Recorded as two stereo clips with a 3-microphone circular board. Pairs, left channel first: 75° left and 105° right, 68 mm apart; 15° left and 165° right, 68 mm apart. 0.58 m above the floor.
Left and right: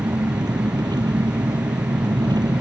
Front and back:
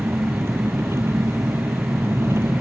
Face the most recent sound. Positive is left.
turn(degrees=-115)